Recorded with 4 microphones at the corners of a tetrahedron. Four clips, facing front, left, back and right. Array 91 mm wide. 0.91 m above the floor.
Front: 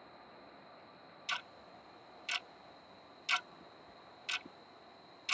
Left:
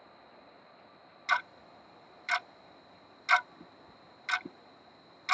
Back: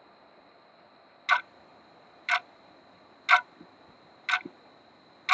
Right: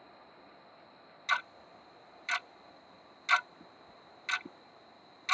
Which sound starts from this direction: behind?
Ticking, at 1.3 s.